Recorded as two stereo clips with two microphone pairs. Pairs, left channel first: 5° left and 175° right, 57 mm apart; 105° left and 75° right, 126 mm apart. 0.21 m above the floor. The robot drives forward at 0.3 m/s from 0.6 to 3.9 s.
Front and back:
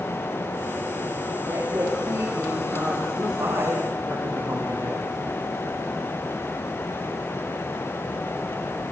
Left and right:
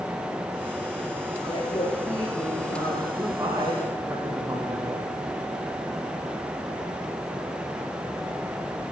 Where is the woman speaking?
145° left, 8 m; by 3.0 s 150° left, 8 m.